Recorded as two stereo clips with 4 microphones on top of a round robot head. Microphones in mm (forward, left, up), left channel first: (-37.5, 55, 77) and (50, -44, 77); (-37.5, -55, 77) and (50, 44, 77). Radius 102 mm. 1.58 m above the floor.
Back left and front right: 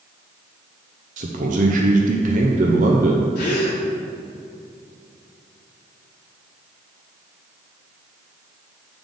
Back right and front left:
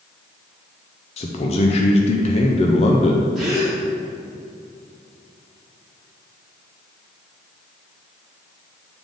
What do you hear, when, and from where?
1.2 s a man speaking: 85° right, 0.6 m
3.4 s a gasp: 135° left, 1.4 m